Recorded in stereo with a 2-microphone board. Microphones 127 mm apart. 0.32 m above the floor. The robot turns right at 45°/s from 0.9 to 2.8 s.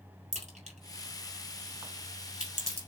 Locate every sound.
0.3 s a crack: 75° right (ahead or behind), 2.5 m; by 2.8 s 10° left (ahead or behind), 2.5 m